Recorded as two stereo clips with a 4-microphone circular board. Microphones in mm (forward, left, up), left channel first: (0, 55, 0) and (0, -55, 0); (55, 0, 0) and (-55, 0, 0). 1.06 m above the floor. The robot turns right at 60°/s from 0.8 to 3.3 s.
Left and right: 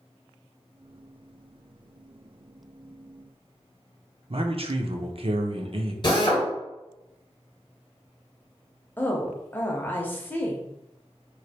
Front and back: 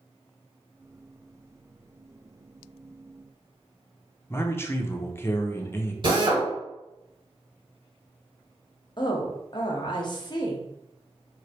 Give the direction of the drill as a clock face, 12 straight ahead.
7 o'clock.